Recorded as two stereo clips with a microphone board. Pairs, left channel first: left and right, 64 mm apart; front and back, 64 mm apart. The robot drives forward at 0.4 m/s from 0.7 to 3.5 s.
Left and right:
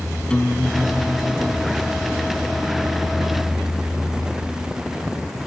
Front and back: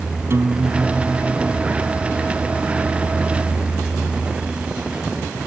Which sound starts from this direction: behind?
A guitar, at 0.3 s.